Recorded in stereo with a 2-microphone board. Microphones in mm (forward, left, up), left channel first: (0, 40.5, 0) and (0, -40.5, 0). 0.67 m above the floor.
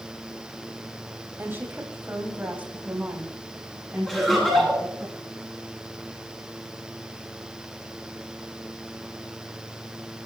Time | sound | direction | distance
1.4 | a woman speaking | 25° right (ahead or behind) | 4 m
4.1 | laughter | 5° left (ahead or behind) | 9.5 m